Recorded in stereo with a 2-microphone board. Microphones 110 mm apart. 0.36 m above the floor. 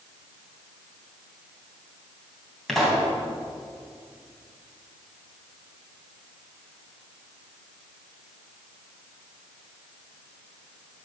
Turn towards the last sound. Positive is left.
turn(degrees=0)  # may be behind; listen again after turning